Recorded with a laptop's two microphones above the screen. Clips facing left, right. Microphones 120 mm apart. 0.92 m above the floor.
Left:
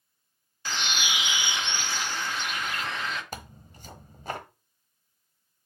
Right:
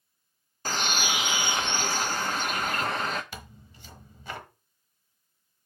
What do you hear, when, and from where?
0.7 s a bird: 45° right (ahead or behind), 1.0 m
3.3 s tearing paper: 40° left (ahead or behind), 1.0 m